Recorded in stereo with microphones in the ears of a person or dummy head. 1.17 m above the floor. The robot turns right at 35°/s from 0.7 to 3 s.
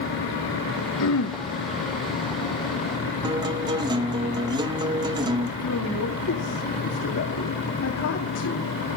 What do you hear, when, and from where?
1.0 s throat clearing: 70° left (ahead or behind), 1.0 m; by 1.4 s 60° left (ahead or behind), 1.0 m
3.2 s a guitar: 20° right (ahead or behind), 0.8 m
5.6 s a man speaking: 70° left (ahead or behind), 2.5 m